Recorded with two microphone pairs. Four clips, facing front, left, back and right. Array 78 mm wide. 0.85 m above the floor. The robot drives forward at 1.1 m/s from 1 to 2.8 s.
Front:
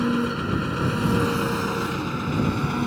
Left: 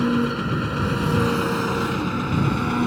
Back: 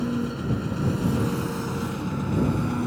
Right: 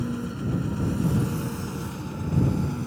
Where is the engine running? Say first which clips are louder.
Left 9 dB, front 4 dB; 55° left; by 2.9 s 70° left.